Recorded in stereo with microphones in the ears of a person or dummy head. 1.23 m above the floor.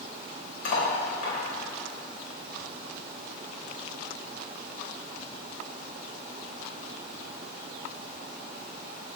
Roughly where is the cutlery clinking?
Left.